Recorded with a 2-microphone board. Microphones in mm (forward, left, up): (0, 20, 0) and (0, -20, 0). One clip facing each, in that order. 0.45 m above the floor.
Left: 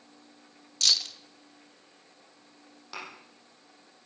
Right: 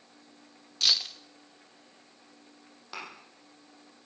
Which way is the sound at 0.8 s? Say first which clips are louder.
Even; 15° right (ahead or behind).